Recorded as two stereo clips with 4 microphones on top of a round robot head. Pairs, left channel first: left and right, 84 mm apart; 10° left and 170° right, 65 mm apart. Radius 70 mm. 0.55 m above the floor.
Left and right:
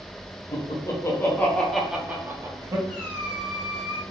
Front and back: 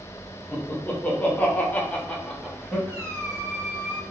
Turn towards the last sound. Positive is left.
turn(degrees=155)